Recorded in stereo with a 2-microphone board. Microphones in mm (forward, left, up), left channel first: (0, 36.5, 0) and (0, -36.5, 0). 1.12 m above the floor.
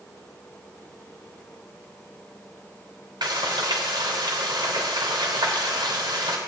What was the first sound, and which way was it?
Frying, 75° right (ahead or behind).